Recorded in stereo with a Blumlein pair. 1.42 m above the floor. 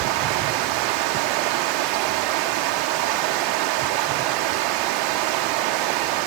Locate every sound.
0.0 s running water: 40° right, 0.9 m